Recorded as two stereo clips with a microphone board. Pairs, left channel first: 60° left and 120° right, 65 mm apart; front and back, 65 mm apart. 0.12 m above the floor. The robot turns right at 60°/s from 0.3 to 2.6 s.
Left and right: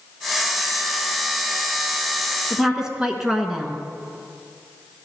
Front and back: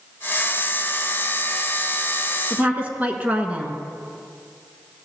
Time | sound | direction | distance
2.5 | a woman speaking | 165° left | 1.1 m